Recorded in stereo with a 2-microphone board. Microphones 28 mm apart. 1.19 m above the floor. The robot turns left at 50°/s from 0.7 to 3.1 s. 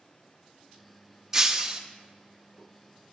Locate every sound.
1.3 s breaking glass: 15° right (ahead or behind), 0.7 m; by 1.8 s 30° right (ahead or behind), 0.7 m